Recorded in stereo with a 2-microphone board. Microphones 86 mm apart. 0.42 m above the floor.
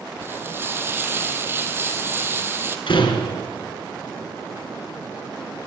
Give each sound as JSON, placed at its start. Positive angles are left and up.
{"t": 0.2, "sound": "frying", "side_deg": -25, "distance_m": 2.0}
{"t": 2.9, "sound": "a door slam", "side_deg": 75, "distance_m": 4.0}